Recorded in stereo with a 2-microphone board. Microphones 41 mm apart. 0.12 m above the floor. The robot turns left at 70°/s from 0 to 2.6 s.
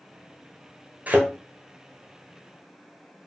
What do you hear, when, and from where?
1.1 s a thud: 40° right (ahead or behind), 0.9 m; by 1.3 s 30° right (ahead or behind), 0.9 m